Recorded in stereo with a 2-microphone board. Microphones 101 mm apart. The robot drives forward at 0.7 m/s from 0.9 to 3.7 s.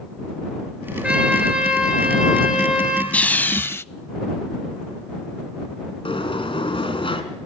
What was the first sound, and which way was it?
A trumpet, 10° right (ahead or behind).